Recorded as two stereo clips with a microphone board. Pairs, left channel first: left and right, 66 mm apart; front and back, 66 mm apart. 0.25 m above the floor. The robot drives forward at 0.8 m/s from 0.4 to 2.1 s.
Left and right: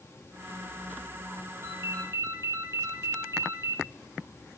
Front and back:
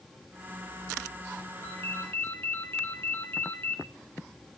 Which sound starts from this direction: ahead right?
A ringtone, at 1.6 s.